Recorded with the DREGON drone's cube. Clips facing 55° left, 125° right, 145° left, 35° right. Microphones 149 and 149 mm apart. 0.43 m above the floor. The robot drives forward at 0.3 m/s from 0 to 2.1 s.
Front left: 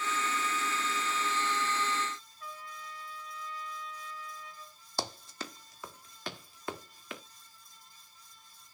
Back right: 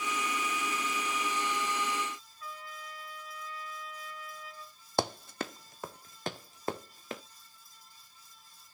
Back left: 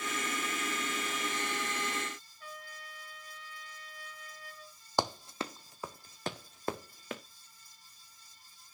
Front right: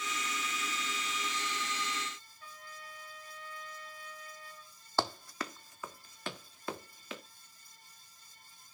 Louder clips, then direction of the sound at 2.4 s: Back right 1 dB, back left 1 dB; 115° left.